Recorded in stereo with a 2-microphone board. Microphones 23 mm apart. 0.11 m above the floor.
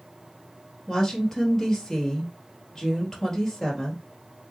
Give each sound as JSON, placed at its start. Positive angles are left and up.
{"t": 0.9, "sound": "a woman speaking", "side_deg": 20, "distance_m": 1.9}